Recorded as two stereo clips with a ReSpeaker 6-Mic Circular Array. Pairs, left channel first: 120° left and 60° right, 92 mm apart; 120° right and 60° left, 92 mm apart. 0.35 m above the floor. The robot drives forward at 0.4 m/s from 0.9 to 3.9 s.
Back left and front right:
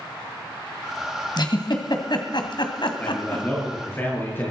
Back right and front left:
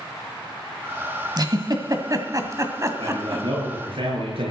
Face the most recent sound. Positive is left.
turn(degrees=55)